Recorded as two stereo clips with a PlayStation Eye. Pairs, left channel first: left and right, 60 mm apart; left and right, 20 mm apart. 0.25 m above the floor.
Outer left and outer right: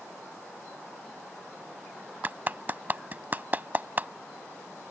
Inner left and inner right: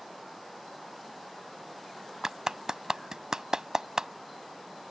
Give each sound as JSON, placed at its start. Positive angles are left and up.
{"t": 2.2, "sound": "a clap", "side_deg": -35}